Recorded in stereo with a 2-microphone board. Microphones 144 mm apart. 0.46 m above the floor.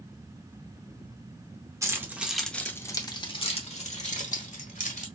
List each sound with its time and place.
1.8 s keys jangling: 20° right (ahead or behind), 0.8 m; by 5.0 s 65° left (ahead or behind), 1.6 m